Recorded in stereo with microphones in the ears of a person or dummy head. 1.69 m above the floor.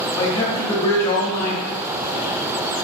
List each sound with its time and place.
0.2 s a man speaking: 25° left (ahead or behind), 0.7 m